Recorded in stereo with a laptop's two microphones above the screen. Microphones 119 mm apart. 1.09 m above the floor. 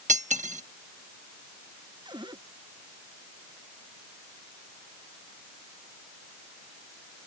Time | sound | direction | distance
0.1 | cutlery clinking | 85° right | ?
2.0 | a cupboard door | 40° right (ahead or behind) | ?